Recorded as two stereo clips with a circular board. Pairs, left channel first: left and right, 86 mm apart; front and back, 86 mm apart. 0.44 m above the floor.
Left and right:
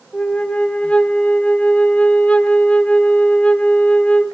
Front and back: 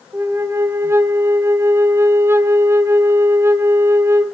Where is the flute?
155° left, 1.0 m.